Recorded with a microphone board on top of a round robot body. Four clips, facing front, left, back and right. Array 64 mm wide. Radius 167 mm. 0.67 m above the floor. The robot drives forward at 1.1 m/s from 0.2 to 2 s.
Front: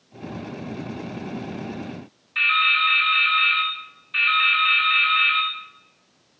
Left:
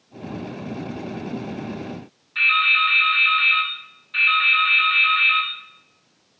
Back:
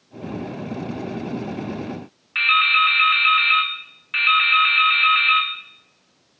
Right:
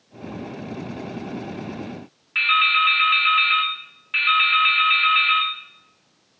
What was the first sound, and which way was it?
Dripping, 155° right.